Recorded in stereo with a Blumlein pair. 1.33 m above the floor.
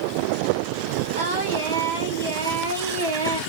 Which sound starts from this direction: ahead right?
Singing, at 1.1 s.